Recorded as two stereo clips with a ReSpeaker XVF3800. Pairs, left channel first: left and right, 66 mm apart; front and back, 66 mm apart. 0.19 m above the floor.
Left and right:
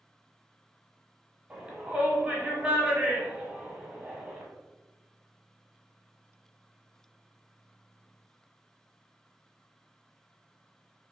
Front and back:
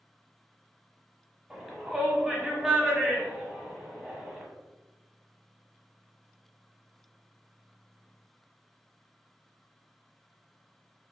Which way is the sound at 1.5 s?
115° right.